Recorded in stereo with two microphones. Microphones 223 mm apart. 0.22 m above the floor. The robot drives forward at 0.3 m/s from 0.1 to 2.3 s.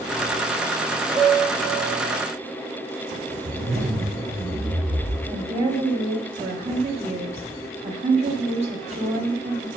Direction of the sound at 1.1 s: 15° right (ahead or behind).